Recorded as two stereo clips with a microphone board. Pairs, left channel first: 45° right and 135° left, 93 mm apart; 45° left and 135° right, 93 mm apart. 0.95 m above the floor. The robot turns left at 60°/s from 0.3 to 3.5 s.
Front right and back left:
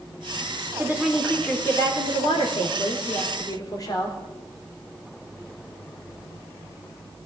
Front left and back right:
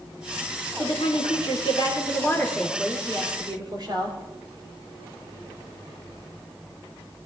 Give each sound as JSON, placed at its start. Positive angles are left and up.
{"t": 0.8, "sound": "a woman speaking", "azimuth_deg": 70, "distance_m": 2.5}